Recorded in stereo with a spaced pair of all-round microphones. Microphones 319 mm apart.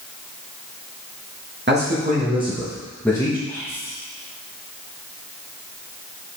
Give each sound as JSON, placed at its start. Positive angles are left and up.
{"t": 1.7, "sound": "a man speaking", "side_deg": -35, "distance_m": 1.5}
{"t": 3.5, "sound": "whispering", "side_deg": 10, "distance_m": 3.0}